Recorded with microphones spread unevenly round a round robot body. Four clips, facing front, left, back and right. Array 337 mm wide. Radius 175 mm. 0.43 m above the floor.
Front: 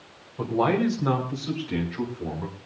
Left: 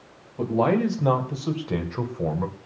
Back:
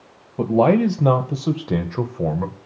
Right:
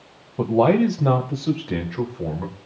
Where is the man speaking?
140° right, 2.5 m; by 2.6 s 170° left, 3 m.